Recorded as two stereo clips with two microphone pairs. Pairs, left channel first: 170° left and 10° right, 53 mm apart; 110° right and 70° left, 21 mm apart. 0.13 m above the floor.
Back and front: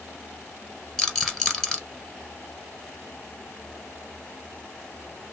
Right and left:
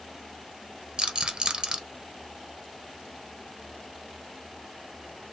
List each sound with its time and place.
1.0 s a rattle: 90° left, 1.1 m